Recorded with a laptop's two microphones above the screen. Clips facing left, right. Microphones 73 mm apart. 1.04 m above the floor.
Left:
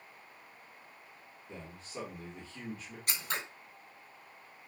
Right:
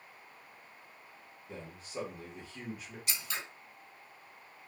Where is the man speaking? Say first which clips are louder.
Right 2 dB; 10° right (ahead or behind), 1.2 m.